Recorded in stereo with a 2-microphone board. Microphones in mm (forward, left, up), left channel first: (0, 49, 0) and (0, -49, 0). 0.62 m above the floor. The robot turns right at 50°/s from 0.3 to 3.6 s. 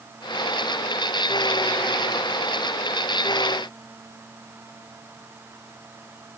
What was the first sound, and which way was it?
Only background noise.